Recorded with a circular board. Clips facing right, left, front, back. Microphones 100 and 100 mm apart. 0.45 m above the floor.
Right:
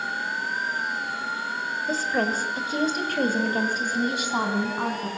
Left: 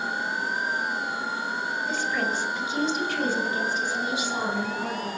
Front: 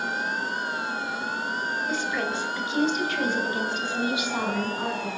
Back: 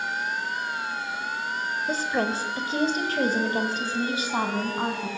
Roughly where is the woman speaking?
Behind right.